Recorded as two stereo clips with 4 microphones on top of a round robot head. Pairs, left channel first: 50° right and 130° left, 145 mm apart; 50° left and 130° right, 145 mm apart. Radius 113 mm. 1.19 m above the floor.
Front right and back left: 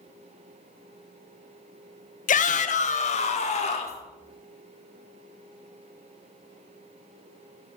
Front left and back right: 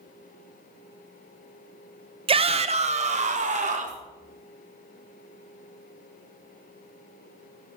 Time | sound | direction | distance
2.3 | a shout | 80° right | 0.8 m